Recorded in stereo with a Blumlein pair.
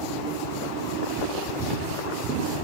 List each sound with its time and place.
1.6 s footsteps: 15° right, 7.5 m